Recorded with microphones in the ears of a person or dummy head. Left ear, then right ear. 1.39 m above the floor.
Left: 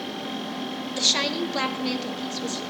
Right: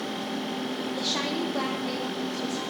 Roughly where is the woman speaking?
Left.